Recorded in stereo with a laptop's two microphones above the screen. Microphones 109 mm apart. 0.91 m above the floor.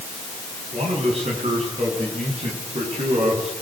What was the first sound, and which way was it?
A man speaking, 80° right.